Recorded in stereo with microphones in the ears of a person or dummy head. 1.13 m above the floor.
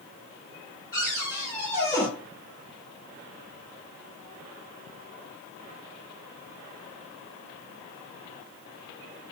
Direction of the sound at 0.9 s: 15° left (ahead or behind).